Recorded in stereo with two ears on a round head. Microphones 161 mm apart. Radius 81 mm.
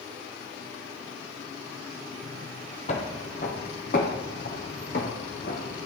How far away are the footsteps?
About 2 m.